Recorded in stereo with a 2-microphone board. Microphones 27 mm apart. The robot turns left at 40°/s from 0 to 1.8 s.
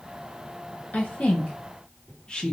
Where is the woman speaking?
65° left (ahead or behind), 0.6 m; by 2.5 s 35° left (ahead or behind), 0.6 m.